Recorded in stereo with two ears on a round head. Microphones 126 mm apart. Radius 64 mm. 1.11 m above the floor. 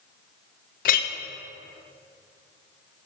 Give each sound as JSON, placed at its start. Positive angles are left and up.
{"t": 0.8, "sound": "a clink", "side_deg": 60, "distance_m": 0.5}